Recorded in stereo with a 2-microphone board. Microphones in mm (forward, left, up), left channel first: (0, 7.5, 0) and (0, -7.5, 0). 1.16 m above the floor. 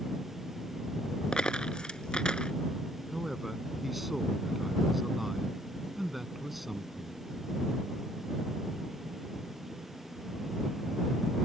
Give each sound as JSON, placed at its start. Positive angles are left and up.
{"t": 1.3, "sound": "a dropped coin", "side_deg": 60}
{"t": 3.1, "sound": "a man speaking", "side_deg": -10}